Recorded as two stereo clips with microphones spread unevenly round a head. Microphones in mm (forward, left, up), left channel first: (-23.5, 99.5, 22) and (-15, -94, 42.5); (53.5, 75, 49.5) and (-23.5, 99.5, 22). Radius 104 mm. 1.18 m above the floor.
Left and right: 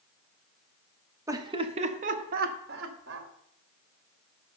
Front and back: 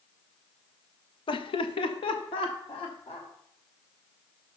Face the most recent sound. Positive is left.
turn(degrees=-55)